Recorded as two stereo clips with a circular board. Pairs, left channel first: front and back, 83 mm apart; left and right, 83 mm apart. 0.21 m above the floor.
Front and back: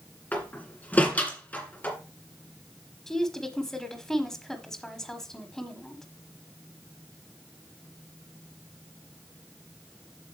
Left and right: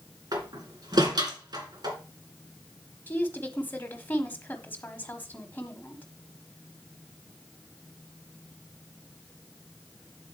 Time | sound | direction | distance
0.3 | a door slam | 65° right | 2 m
3.1 | a woman speaking | 75° left | 1.2 m